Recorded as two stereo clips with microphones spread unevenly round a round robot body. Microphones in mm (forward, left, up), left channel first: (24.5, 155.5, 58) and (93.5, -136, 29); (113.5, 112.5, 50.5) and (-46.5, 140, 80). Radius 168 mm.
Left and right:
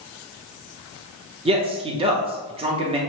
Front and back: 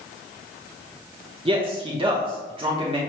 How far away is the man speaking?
About 0.9 m.